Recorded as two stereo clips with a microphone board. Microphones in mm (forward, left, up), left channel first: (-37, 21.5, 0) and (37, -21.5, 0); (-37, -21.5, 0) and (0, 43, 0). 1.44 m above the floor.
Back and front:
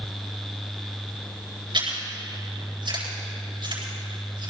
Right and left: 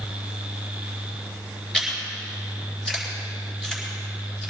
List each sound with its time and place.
1.7 s chewing: 40° right, 6.5 m